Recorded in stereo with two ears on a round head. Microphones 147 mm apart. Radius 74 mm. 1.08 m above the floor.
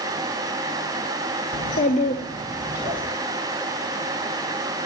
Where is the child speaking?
65° left (ahead or behind), 0.9 m; by 3.0 s 20° right (ahead or behind), 1.2 m.